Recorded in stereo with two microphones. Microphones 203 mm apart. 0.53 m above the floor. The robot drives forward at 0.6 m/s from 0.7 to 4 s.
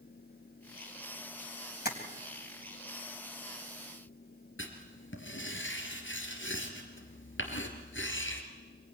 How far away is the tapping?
About 3.5 m.